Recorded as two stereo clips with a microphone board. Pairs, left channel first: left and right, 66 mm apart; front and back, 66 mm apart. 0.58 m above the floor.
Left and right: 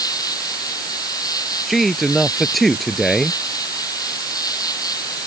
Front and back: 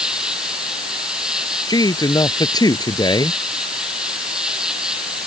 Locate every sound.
0.0 s an insect: 100° left
1.7 s a man speaking: straight ahead